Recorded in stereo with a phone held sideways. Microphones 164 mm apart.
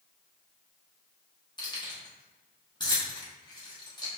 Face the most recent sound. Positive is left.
turn(degrees=30)  # may be behind; listen again after turning